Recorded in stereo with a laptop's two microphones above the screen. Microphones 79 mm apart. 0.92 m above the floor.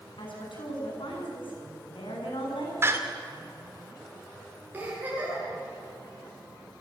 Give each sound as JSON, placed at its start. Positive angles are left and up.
{"t": 0.2, "sound": "a woman speaking", "side_deg": 80, "distance_m": 8.5}
{"t": 2.8, "sound": "a door slam", "side_deg": -30, "distance_m": 2.5}
{"t": 4.7, "sound": "a giggle", "side_deg": -20, "distance_m": 9.0}